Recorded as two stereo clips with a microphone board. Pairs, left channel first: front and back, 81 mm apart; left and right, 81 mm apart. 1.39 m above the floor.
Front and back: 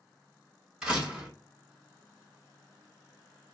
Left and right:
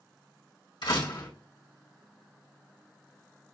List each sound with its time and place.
0.8 s a door slam: 100° left, 1.7 m